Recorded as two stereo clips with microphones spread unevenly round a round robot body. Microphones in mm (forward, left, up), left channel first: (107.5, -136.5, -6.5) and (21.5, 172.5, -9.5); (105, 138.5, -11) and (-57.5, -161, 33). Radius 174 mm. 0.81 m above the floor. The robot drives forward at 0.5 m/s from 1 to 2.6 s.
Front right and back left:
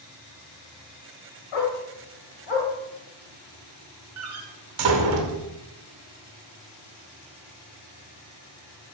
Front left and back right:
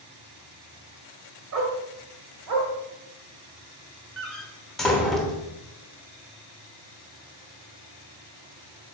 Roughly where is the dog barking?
Right.